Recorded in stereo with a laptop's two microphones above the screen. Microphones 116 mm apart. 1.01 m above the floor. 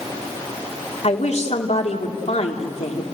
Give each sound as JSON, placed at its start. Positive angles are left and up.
{"t": 1.0, "sound": "a woman speaking", "side_deg": 65, "distance_m": 3.0}